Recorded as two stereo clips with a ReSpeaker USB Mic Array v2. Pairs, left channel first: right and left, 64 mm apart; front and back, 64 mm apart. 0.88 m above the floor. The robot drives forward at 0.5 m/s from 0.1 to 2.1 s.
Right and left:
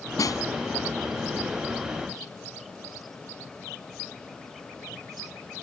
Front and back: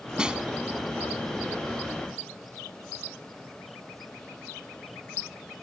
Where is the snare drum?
105° right.